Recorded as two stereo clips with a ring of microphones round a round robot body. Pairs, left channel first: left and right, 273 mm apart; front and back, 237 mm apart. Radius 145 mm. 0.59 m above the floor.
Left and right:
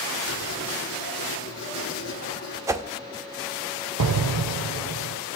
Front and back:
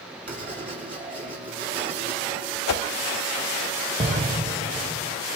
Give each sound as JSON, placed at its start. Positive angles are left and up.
{"t": 0.3, "sound": "writing", "azimuth_deg": 140, "distance_m": 7.0}
{"t": 2.7, "sound": "a whoosh", "azimuth_deg": -10, "distance_m": 0.7}
{"t": 4.0, "sound": "an explosion", "azimuth_deg": -110, "distance_m": 0.6}